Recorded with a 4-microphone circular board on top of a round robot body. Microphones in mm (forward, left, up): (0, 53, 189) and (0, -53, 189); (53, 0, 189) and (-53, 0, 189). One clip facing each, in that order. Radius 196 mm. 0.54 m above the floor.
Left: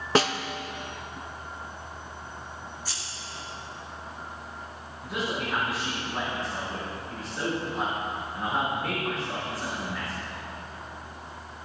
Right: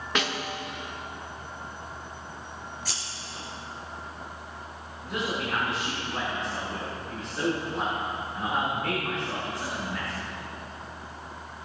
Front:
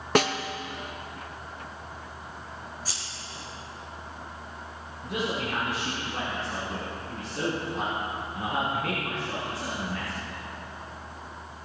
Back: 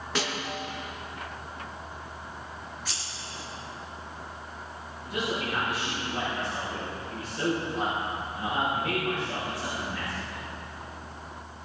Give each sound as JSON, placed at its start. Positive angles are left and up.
{"t": 0.1, "sound": "a snare drum", "azimuth_deg": 35, "distance_m": 0.9}
{"t": 2.9, "sound": "scissors", "azimuth_deg": -55, "distance_m": 4.5}
{"t": 5.0, "sound": "a man speaking", "azimuth_deg": 5, "distance_m": 7.0}